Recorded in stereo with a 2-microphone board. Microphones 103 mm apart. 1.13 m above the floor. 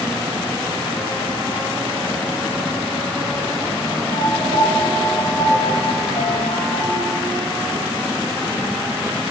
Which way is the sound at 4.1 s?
85° left.